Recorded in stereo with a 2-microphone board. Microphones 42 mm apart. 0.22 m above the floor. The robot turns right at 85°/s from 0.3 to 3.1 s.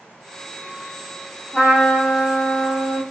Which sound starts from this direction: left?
A trumpet, at 1.5 s.